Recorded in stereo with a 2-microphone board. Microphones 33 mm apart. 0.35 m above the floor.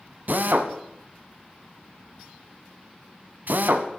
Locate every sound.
0.3 s a drill: 65° right (ahead or behind), 1.5 m